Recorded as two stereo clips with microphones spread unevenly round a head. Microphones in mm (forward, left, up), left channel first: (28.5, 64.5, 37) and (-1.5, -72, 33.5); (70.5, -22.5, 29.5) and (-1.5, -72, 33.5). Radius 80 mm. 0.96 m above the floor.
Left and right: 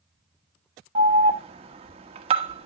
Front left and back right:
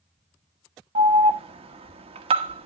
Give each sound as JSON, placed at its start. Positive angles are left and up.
{"t": 0.9, "sound": "an alarm", "azimuth_deg": -150, "distance_m": 1.3}